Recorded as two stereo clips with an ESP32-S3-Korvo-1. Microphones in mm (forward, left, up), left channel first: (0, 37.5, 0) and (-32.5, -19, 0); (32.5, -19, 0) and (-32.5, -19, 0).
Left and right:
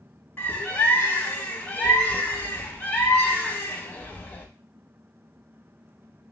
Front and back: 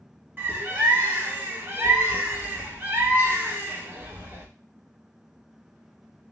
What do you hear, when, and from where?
0.4 s a bird: 125° left, 0.9 m